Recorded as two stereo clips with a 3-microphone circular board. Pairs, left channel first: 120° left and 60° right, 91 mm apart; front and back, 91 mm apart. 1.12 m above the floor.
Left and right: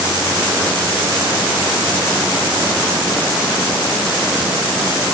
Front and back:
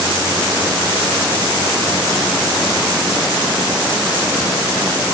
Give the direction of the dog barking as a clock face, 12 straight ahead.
I don't hear a dog barking.